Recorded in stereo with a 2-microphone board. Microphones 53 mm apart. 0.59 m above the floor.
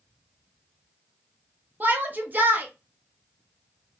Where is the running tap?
I don't hear a running tap.